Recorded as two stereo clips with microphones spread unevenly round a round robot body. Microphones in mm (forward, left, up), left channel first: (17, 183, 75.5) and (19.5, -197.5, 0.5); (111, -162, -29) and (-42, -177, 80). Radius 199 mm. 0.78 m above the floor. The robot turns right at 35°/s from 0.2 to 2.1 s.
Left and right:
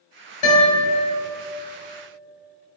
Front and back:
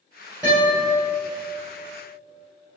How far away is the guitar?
About 2 m.